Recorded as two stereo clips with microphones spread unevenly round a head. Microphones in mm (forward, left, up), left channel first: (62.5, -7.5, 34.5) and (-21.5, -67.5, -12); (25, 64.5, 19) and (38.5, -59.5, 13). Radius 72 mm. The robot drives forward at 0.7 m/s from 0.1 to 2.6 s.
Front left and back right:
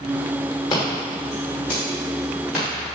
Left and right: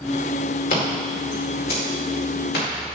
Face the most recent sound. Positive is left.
turn(degrees=125)